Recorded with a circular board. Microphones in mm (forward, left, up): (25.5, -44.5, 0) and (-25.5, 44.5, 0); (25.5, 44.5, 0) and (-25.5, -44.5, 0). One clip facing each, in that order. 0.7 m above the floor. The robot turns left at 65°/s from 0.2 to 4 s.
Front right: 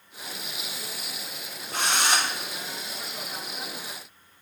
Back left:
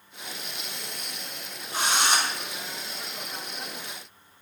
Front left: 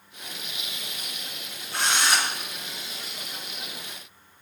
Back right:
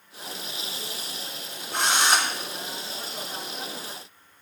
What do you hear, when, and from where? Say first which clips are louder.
1.7 s a drill: even, back right 2 dB; 30° right, 3 m; by 2.3 s 65° right, 3 m